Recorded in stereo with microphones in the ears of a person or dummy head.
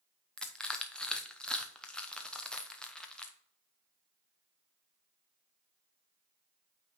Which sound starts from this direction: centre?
Crushing, at 0.4 s.